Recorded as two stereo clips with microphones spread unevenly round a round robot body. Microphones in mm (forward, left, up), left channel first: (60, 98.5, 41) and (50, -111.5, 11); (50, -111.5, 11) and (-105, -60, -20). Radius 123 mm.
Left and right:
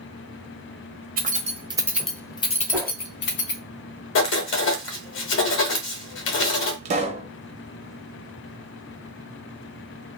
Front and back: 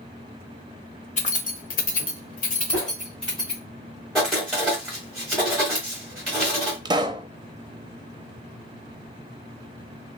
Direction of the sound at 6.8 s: 145° right.